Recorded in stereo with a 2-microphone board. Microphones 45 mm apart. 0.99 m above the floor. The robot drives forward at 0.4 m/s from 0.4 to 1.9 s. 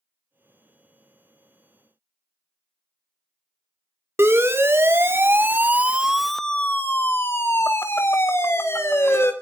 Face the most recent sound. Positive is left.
turn(degrees=80)